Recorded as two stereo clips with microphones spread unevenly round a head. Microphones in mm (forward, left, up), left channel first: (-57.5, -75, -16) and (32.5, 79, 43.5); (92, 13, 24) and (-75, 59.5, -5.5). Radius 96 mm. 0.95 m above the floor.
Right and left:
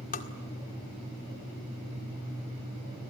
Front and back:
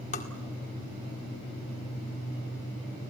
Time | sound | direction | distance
0.1 | tapping | 70° right | 1.9 m